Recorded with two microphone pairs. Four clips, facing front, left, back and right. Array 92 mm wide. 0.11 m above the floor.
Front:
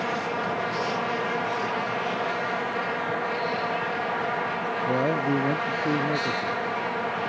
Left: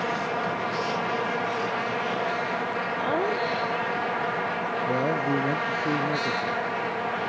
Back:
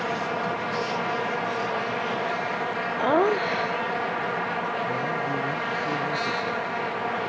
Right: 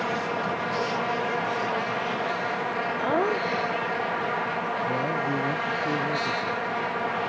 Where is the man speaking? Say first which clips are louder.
Left 5 dB, front 3 dB; 25° left.